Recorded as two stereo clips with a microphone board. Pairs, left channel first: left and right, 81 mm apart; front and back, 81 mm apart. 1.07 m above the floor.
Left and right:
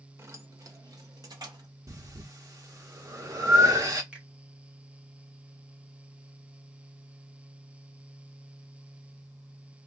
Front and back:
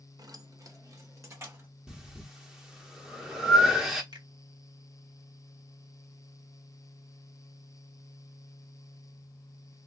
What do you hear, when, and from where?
0.2 s keys jangling: 145° right, 0.6 m; by 1.7 s 125° right, 1.4 m
1.9 s breathing: 100° right, 0.8 m
4.1 s a finger snap: 165° right, 1.3 m